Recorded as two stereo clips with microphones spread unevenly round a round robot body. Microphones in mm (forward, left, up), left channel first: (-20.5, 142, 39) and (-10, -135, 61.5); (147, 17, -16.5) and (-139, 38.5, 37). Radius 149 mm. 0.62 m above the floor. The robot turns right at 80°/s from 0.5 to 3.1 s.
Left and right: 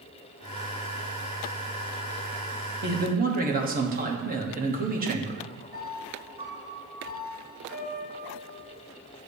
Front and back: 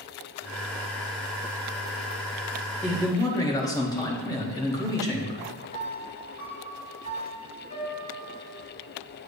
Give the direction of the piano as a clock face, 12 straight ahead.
1 o'clock.